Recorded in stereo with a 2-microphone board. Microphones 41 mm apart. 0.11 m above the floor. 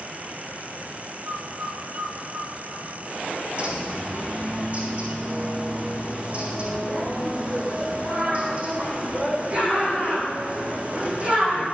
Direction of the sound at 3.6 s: 35° right (ahead or behind).